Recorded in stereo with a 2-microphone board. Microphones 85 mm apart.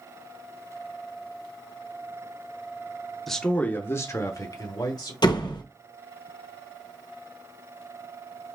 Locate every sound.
3.3 s a man speaking: centre (ahead or behind), 0.7 m; by 5.1 s 55° left (ahead or behind), 1.4 m
5.2 s a door slam: 60° left (ahead or behind), 0.9 m